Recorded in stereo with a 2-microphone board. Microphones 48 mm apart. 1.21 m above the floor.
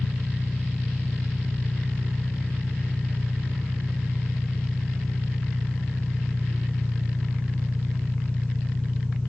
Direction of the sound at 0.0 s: 30° left (ahead or behind).